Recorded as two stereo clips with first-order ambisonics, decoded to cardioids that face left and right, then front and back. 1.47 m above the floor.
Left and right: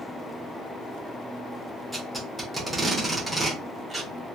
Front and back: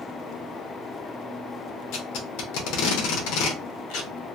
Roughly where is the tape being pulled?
Ahead.